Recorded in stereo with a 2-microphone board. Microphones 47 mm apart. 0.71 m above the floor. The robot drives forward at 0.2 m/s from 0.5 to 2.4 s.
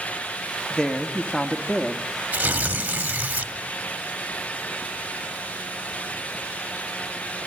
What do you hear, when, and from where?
0.7 s a woman speaking: 20° left (ahead or behind), 1.3 m; by 2.1 s 15° left (ahead or behind), 1.5 m
2.3 s tearing paper: 30° right (ahead or behind), 1.9 m